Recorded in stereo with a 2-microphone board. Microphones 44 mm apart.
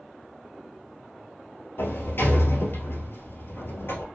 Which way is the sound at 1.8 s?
60° left (ahead or behind).